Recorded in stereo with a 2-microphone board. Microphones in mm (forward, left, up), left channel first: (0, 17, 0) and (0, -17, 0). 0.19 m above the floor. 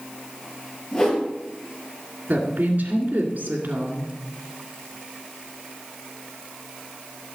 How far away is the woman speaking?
About 2 m.